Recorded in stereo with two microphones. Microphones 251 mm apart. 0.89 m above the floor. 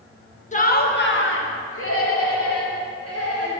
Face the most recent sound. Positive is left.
turn(degrees=70)  # may be behind; listen again after turning